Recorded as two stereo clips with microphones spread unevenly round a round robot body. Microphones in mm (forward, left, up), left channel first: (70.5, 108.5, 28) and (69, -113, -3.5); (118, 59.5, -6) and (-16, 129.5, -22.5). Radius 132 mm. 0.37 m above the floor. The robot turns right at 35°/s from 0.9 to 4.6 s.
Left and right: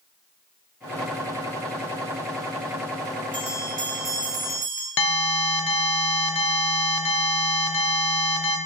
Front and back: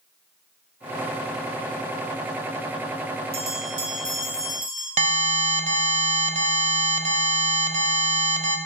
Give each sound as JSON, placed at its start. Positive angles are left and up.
{"t": 3.3, "sound": "a bell", "azimuth_deg": 165, "distance_m": 1.3}
{"t": 5.0, "sound": "an alarm", "azimuth_deg": 135, "distance_m": 0.9}